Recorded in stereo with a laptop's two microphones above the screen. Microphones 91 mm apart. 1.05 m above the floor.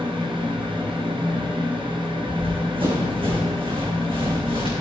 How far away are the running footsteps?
About 3 m.